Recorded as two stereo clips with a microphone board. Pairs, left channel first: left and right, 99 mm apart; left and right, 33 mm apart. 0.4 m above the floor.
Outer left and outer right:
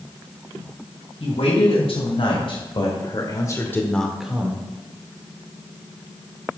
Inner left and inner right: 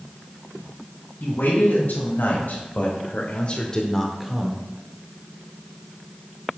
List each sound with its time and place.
1.2 s a man speaking: 70° left (ahead or behind), 3 m; by 4.6 s 25° right (ahead or behind), 1.1 m